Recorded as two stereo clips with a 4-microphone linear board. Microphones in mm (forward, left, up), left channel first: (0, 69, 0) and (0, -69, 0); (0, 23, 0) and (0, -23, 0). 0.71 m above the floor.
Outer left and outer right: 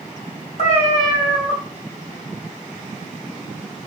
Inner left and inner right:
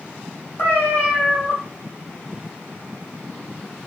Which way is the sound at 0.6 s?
50° left (ahead or behind).